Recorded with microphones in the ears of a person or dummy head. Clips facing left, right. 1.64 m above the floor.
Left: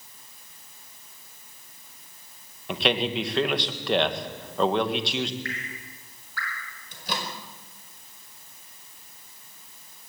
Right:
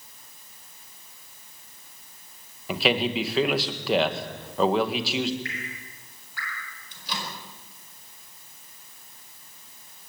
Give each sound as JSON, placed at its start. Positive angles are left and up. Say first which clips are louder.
{"t": 2.7, "sound": "a man speaking", "louder": "right 1 dB", "side_deg": -5, "distance_m": 1.9}
{"t": 5.5, "sound": "dripping", "louder": "left 1 dB", "side_deg": -20, "distance_m": 6.5}
{"t": 6.9, "sound": "a microwave", "louder": "left 3 dB", "side_deg": 50, "distance_m": 5.0}